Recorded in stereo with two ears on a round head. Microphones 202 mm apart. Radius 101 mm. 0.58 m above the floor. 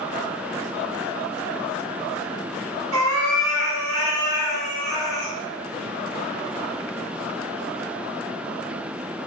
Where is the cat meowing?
85° right, 1.5 m.